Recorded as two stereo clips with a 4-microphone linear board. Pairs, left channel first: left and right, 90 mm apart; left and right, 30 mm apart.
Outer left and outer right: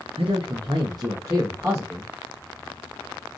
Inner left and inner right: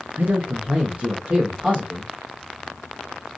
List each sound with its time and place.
0.2 s a man speaking: 85° right, 0.5 m; by 2.1 s 15° right (ahead or behind), 1.1 m